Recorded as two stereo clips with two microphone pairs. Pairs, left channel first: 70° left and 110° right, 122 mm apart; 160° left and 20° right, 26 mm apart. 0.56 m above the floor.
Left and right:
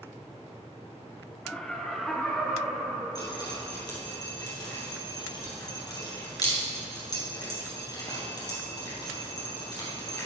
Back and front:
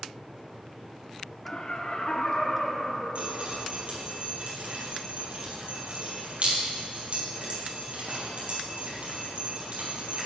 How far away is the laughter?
About 1.0 m.